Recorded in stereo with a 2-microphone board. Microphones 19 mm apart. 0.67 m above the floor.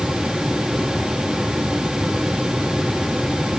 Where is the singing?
I don't hear singing.